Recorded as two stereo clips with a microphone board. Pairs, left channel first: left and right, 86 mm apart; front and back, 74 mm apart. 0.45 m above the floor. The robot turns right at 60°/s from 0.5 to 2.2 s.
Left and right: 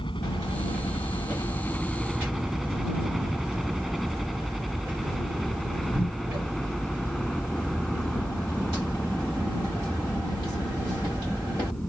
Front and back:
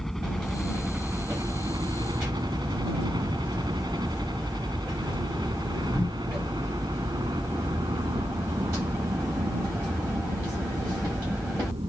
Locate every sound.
0.0 s a helicopter: 85° left; by 11.9 s 175° left